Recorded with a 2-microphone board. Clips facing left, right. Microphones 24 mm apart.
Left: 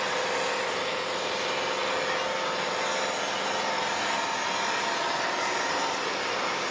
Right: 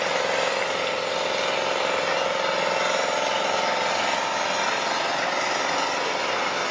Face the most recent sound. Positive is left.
turn(degrees=-60)  # may be behind; listen again after turning